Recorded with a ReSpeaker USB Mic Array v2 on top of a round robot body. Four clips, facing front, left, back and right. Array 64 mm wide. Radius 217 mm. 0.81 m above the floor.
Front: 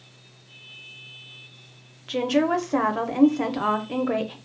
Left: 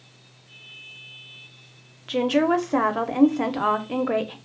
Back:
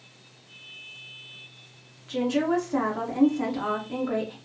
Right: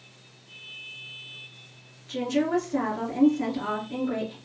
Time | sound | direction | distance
2.1 | a woman speaking | 65° left | 0.6 m